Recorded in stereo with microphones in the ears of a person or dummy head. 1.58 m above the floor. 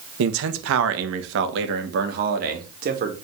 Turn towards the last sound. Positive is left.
turn(degrees=-45)  # may be behind; listen again after turning